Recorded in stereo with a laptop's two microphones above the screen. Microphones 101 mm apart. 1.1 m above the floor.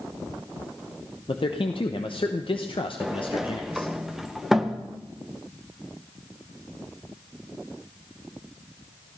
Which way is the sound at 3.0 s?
5° right (ahead or behind).